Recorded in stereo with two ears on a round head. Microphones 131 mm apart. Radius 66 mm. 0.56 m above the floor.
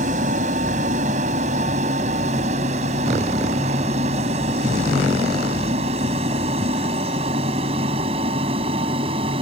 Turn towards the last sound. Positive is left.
turn(degrees=-40)  # may be behind; listen again after turning